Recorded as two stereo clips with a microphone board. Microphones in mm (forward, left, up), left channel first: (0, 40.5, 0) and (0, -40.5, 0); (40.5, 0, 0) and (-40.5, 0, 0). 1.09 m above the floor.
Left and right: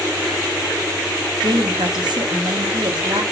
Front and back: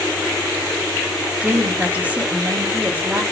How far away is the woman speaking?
About 0.9 m.